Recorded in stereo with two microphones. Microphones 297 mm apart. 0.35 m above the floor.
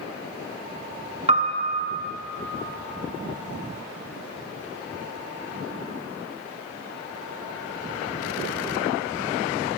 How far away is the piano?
About 0.5 m.